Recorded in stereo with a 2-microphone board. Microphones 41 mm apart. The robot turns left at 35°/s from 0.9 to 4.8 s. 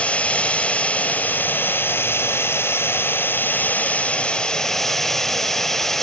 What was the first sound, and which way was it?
Running water, 145° left.